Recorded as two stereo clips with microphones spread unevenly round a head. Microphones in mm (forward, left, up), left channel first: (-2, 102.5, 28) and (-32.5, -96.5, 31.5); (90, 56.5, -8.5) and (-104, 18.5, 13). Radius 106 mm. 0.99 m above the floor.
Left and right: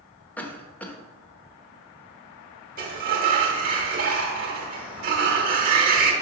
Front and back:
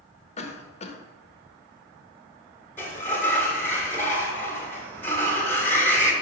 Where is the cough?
5° left, 0.8 m.